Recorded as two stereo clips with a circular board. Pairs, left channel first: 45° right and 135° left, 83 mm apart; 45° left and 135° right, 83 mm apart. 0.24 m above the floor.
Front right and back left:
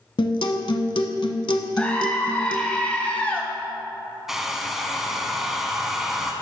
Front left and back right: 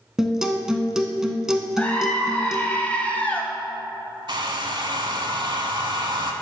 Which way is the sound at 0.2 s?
50° right.